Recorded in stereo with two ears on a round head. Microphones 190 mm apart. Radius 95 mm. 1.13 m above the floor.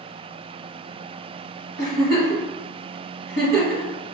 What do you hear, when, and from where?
1.8 s a giggle: 50° right (ahead or behind), 1.6 m